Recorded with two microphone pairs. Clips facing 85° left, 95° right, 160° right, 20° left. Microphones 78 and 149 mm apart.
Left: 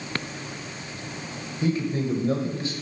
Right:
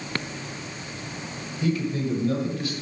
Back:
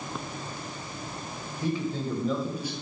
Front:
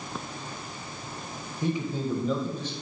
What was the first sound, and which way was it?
A man speaking, 60° left.